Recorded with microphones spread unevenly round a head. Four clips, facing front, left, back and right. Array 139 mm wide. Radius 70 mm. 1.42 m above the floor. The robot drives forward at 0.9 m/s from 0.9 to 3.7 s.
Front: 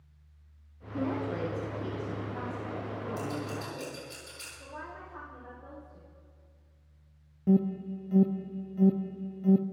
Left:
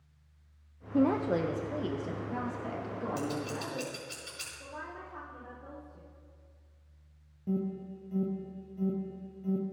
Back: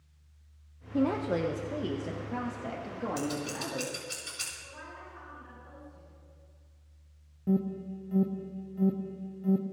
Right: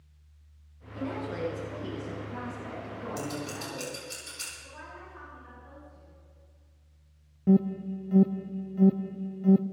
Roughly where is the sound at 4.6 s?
Ahead left.